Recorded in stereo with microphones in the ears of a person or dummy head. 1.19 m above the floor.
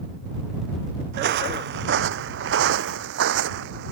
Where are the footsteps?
55° right (ahead or behind); by 3.9 s 65° right (ahead or behind).